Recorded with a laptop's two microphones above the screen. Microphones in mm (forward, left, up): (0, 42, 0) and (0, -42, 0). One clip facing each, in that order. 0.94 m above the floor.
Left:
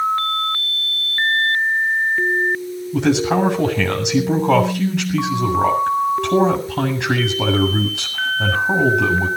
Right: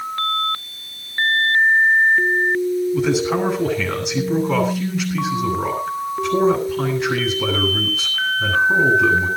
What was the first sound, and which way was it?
A man speaking, 75° left (ahead or behind).